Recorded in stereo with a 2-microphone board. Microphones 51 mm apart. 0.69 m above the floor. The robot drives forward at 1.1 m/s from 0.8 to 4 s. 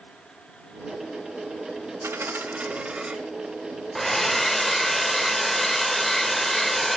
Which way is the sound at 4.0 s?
5° left (ahead or behind).